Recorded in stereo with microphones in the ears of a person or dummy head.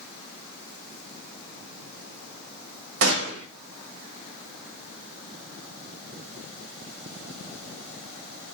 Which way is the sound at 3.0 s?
70° right (ahead or behind).